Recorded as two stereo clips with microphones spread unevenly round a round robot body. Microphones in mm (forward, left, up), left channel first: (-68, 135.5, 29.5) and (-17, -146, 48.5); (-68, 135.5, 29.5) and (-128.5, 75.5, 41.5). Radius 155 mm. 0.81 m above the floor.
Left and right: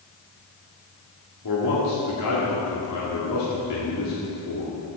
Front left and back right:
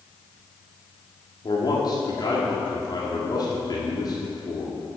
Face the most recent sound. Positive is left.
turn(degrees=75)